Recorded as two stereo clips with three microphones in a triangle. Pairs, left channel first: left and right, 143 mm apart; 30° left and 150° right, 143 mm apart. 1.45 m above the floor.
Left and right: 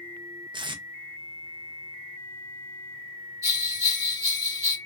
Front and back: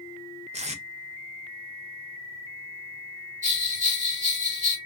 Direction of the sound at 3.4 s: 155° right.